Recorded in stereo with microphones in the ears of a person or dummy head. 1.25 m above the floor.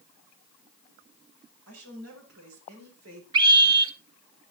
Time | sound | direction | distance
1.7 | a woman speaking | 85° right | 6 m
3.3 | a scream | 25° right (ahead or behind) | 2.5 m